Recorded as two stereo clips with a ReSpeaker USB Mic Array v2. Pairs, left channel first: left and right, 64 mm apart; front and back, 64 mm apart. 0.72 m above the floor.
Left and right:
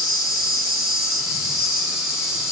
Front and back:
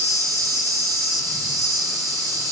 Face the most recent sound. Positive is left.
turn(degrees=-175)